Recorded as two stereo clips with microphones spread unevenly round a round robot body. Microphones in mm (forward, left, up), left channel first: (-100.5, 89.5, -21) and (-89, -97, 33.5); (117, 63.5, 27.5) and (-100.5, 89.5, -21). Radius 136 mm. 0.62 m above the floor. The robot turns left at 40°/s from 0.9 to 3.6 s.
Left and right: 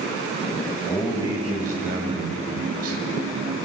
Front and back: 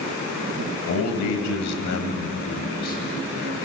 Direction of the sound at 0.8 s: 10° left.